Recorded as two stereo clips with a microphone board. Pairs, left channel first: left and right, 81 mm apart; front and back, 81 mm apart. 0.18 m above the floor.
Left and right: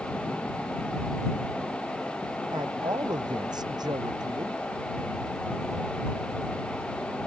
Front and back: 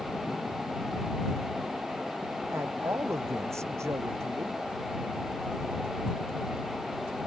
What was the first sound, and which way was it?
A man speaking, 125° right.